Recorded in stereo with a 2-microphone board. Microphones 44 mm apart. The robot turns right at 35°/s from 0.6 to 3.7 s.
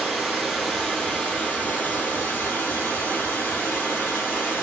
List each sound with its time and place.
0.0 s running water: straight ahead, 1.7 m; by 4.6 s 110° left, 1.7 m